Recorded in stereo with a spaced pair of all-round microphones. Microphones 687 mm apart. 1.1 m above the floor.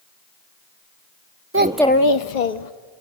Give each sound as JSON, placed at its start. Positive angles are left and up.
{"t": 1.5, "sound": "a child speaking", "side_deg": -20, "distance_m": 1.0}